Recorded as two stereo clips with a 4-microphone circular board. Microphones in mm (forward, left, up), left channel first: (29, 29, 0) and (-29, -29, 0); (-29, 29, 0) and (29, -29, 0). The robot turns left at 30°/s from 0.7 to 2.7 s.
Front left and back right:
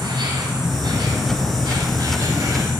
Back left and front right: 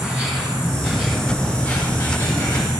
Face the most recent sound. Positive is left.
turn(degrees=180)